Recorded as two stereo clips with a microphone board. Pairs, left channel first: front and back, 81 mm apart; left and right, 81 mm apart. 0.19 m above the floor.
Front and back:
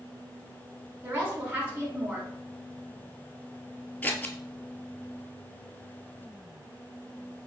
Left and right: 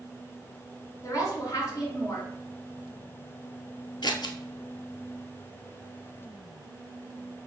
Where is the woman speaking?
120° left, 1.9 m.